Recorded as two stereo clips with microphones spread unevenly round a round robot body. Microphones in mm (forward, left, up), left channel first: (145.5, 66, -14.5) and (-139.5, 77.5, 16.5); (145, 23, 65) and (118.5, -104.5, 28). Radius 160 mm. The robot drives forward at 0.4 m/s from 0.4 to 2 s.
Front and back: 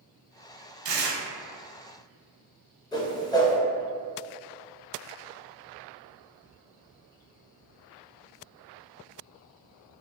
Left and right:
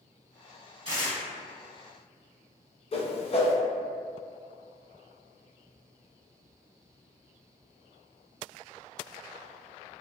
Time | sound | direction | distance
0.8 | tearing paper | 175° left | 0.9 m
2.9 | a whoosh | 50° left | 0.6 m